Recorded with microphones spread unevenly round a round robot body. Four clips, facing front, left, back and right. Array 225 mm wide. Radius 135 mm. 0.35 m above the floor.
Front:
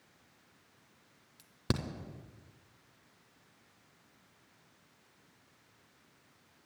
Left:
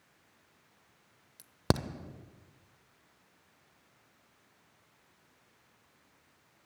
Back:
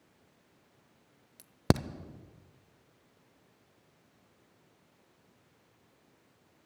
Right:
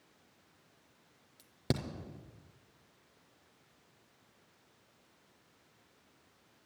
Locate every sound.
1.4 s a crack: 135° left, 0.5 m